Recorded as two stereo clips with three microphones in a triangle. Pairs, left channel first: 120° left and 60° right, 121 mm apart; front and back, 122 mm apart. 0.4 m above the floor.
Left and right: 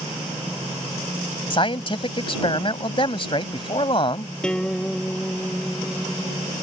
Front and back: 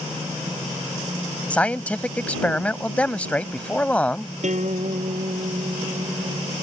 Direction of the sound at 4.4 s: 155° right.